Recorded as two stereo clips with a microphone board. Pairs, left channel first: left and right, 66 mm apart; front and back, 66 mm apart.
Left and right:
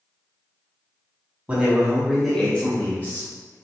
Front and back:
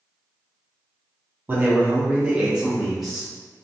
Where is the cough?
I don't hear a cough.